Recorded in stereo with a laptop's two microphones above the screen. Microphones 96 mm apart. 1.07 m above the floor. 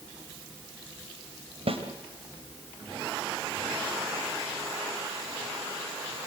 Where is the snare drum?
70° right (ahead or behind), 3 m.